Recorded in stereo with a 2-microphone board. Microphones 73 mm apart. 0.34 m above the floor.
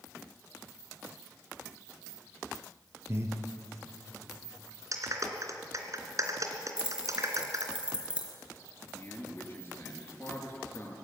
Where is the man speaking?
30° left (ahead or behind), 5.5 m.